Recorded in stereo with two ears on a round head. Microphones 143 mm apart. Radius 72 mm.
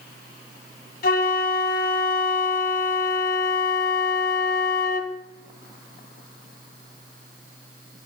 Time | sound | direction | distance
1.0 | a flute | 60° left (ahead or behind) | 2.0 m